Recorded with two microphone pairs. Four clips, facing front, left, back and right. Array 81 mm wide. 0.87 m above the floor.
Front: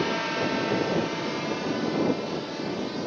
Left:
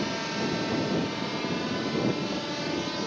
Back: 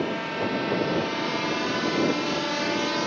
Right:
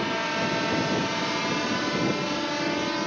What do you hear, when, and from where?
0.0 s a drone: 50° right; by 3.1 s 145° right